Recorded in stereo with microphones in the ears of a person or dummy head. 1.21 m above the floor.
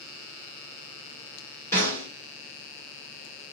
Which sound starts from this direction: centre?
A snare drum, at 1.7 s.